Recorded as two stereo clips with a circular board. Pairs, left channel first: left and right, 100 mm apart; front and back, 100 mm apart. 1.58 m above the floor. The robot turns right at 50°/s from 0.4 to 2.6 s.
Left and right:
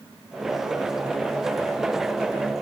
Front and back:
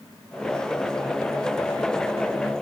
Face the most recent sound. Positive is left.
No sound to turn to.